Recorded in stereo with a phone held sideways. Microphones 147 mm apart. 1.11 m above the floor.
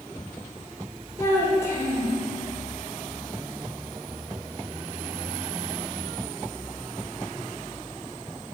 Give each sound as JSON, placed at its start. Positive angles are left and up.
{"t": 1.2, "sound": "a child speaking", "side_deg": 20, "distance_m": 2.5}